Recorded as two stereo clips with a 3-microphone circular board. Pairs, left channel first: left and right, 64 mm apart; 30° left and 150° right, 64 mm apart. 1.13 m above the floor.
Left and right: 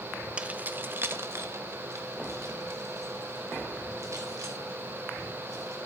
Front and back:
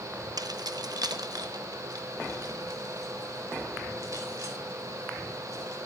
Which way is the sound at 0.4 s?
160° right.